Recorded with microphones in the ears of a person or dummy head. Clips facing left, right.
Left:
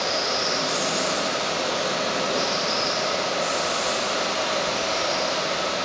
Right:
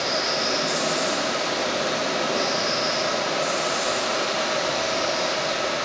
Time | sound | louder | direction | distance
0.0 | running water | even | 30° right (ahead or behind) | 2 m